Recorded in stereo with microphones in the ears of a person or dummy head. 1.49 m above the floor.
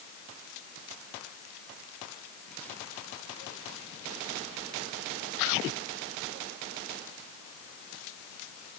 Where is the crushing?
I don't hear crushing.